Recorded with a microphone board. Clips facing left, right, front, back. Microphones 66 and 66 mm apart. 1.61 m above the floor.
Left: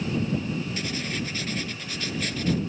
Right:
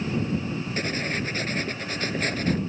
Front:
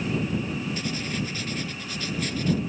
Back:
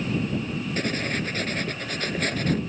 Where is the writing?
140° right.